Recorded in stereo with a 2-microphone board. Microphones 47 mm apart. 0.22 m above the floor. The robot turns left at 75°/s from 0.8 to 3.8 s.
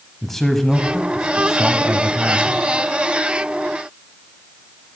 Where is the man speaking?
5° left (ahead or behind), 1.0 m; by 2.6 s 25° right (ahead or behind), 1.0 m.